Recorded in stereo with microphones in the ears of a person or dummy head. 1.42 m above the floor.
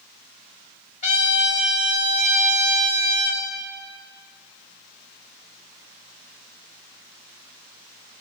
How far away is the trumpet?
About 2 m.